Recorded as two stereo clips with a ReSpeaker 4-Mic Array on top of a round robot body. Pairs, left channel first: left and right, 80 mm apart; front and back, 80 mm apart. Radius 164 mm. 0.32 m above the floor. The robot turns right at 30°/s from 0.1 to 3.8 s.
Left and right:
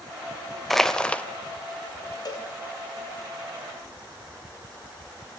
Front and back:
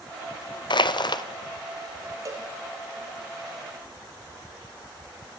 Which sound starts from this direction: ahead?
Crushing, at 0.7 s.